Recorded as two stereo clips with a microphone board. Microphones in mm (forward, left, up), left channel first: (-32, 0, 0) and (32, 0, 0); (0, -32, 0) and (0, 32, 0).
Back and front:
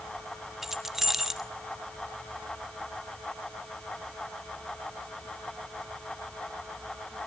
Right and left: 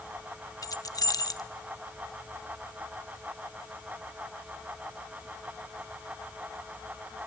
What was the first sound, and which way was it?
Keys jangling, 85° right.